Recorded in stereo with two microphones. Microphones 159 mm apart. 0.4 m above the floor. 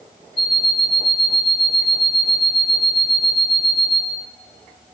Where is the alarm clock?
70° right (ahead or behind), 1.0 m.